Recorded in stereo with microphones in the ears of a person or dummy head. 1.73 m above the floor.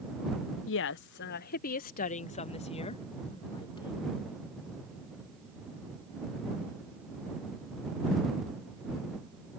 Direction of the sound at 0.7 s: 65° left (ahead or behind).